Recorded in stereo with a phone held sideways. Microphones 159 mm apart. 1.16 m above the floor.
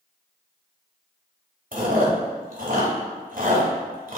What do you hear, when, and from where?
1.7 s chewing: 60° right (ahead or behind), 1.5 m